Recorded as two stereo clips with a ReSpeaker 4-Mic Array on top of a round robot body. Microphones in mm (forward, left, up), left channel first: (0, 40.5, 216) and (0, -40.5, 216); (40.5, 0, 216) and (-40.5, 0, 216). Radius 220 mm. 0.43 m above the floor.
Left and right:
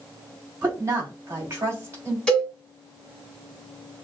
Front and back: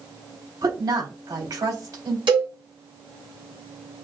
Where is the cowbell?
175° left, 2.5 m.